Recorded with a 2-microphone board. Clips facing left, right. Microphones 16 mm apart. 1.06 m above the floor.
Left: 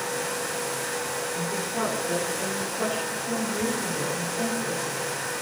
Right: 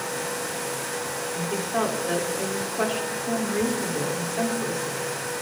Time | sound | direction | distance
1.3 | a woman speaking | 65° right (ahead or behind) | 3 m